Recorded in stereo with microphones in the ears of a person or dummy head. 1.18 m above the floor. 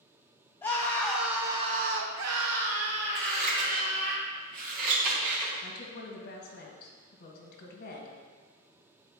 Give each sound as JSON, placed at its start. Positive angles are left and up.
{"t": 0.6, "sound": "a scream", "side_deg": 10, "distance_m": 1.4}
{"t": 3.1, "sound": "scissors", "side_deg": -40, "distance_m": 2.5}
{"t": 5.6, "sound": "a woman speaking", "side_deg": 55, "distance_m": 2.0}